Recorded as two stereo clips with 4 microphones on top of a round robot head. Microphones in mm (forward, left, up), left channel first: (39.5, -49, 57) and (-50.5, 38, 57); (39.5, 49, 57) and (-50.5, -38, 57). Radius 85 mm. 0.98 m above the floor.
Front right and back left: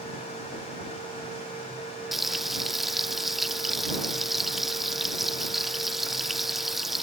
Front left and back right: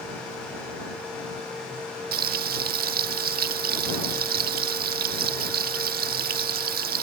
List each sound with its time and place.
2.1 s frying: 135° right